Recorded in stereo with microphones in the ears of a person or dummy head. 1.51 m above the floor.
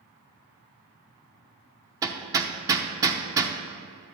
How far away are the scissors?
No scissors in this recording.